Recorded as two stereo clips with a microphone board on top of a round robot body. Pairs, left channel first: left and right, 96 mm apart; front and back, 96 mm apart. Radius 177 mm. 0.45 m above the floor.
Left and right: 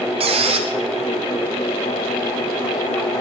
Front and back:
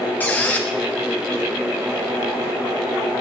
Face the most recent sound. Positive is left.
turn(degrees=-75)